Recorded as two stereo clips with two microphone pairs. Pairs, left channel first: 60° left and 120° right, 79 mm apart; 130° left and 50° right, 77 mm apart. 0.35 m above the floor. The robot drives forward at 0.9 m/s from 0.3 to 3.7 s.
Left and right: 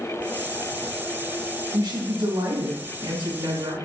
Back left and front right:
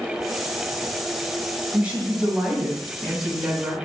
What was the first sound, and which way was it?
A woman speaking, 125° right.